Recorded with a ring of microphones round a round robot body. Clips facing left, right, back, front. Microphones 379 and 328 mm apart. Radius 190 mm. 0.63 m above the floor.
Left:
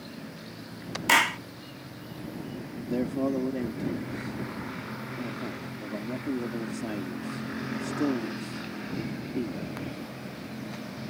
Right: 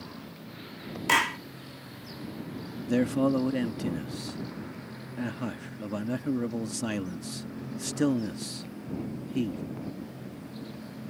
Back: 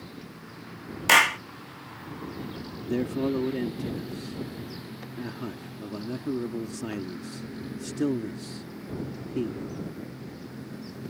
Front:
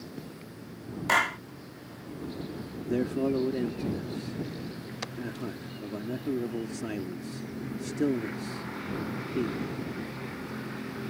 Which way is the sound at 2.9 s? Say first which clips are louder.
Right 3 dB, back 1 dB; 105° right.